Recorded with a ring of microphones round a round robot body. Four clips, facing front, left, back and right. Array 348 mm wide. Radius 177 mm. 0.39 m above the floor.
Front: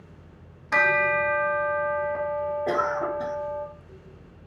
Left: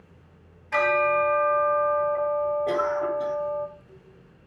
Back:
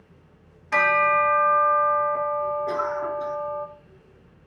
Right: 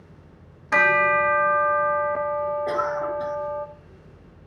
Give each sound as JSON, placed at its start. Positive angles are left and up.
{"t": 0.7, "sound": "a bell", "azimuth_deg": -75, "distance_m": 1.7}
{"t": 2.7, "sound": "a cough", "azimuth_deg": -10, "distance_m": 2.0}